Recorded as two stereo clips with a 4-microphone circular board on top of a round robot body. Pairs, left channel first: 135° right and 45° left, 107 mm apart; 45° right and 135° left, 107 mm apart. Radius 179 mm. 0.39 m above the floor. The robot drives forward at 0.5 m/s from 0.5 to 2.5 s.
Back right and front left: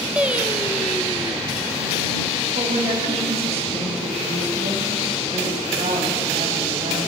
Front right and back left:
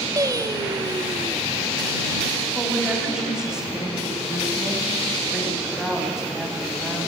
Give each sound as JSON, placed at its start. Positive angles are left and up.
{"t": 0.2, "sound": "singing", "azimuth_deg": 115, "distance_m": 1.6}
{"t": 2.5, "sound": "a woman speaking", "azimuth_deg": 50, "distance_m": 5.0}